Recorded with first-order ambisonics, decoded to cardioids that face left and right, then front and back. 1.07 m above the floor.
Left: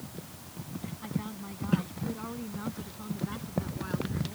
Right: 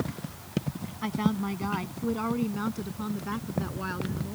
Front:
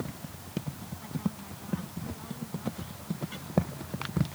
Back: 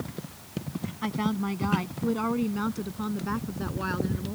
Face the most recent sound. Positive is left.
turn(degrees=-155)